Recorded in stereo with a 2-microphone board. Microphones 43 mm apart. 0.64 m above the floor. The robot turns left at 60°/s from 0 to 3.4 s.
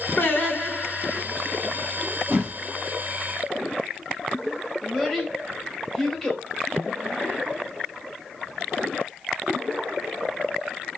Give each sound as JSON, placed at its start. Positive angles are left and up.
{"t": 0.2, "sound": "singing", "azimuth_deg": 55, "distance_m": 1.3}
{"t": 2.3, "sound": "a whoosh", "side_deg": -50, "distance_m": 1.6}
{"t": 4.8, "sound": "a child speaking", "side_deg": 10, "distance_m": 1.3}